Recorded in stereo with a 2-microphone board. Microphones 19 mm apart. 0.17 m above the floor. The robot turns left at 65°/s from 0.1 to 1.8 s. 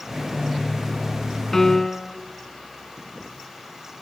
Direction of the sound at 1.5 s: 20° left (ahead or behind).